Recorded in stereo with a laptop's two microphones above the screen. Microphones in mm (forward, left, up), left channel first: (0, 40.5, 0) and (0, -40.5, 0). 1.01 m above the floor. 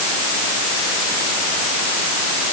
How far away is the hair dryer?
I don't hear a hair dryer.